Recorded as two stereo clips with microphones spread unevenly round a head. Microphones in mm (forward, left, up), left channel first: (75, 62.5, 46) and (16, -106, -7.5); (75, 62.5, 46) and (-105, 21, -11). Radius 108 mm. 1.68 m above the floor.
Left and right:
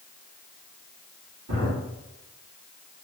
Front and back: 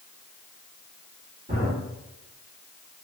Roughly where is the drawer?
Right.